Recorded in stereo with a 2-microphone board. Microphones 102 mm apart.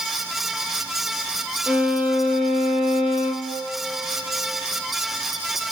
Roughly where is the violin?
Centre.